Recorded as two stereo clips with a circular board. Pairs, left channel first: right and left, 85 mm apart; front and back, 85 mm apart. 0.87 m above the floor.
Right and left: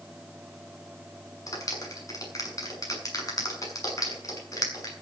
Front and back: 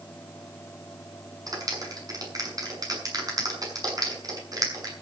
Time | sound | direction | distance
1.5 | a clap | 140° right | 7 m